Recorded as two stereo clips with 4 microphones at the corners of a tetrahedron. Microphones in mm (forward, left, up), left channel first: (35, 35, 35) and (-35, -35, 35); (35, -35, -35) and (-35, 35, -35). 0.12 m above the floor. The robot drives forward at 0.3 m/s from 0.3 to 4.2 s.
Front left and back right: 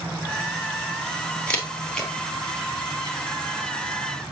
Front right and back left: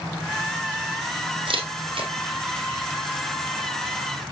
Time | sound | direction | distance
1.5 | a camera shutter | 120° left | 2 m